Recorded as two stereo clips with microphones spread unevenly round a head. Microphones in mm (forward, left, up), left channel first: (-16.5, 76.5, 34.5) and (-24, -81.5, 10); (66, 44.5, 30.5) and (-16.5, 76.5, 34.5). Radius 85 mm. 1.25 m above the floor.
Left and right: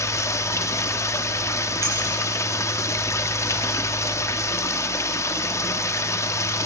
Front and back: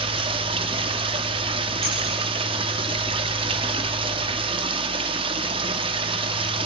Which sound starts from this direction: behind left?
Running water, at 0.0 s.